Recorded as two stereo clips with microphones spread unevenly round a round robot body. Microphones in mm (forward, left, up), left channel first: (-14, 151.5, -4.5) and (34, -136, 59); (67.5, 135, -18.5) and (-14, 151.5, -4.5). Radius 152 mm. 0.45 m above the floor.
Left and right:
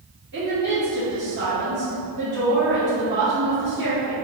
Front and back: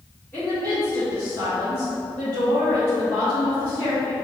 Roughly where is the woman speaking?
Ahead right.